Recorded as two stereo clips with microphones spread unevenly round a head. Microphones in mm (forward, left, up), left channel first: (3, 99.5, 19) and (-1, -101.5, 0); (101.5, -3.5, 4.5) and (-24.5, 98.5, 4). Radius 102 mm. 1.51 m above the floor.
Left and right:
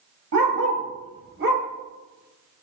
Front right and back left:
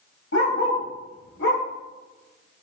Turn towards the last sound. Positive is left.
turn(degrees=-45)